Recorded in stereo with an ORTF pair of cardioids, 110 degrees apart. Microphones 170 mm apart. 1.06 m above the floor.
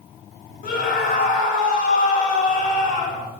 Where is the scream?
60° left, 3 m.